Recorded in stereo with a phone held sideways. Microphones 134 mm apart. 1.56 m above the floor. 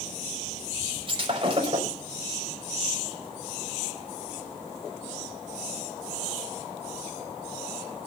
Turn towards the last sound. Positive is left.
turn(degrees=-40)  # may be behind; listen again after turning